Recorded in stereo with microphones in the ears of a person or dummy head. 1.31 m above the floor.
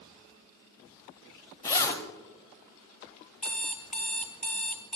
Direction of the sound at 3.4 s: 5° left (ahead or behind).